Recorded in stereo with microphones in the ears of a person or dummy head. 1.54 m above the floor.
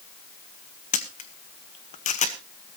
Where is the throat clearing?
I don't hear throat clearing.